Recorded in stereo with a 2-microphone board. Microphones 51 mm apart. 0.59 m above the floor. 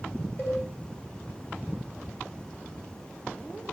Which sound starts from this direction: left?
A cowbell, at 0.4 s.